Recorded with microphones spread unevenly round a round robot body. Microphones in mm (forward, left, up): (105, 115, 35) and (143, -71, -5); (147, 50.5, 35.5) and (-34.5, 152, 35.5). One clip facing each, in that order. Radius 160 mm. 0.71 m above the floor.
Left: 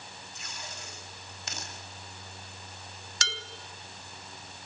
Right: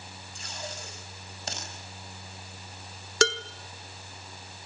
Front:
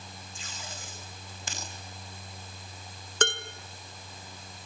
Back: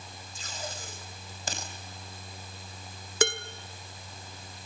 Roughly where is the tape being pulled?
Behind right.